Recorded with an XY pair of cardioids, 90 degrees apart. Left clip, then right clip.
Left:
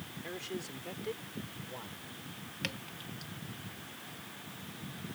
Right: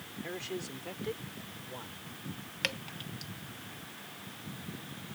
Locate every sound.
0.2 s a man speaking: 15° right; by 2.1 s straight ahead
2.6 s dripping: 40° right